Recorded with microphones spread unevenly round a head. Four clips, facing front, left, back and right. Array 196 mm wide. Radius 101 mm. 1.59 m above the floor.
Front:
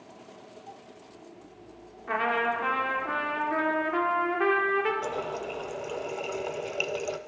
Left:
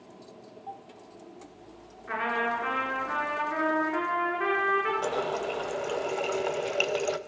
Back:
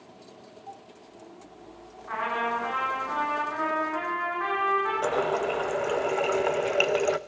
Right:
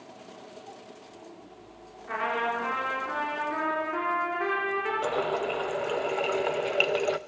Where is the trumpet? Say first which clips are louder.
Even, front 1 dB; 5° left, 5.5 m.